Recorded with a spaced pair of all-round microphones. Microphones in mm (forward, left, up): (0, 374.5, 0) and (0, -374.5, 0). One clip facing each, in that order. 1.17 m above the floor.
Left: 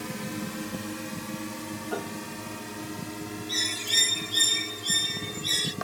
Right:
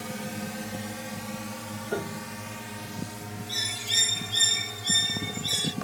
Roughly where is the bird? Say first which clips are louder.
Left 4 dB; centre.